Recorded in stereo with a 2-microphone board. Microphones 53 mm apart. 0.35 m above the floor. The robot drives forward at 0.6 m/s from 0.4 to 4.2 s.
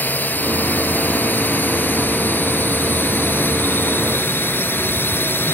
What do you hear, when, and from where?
0.0 s a drone: 35° left (ahead or behind); by 5.5 s 45° left (ahead or behind)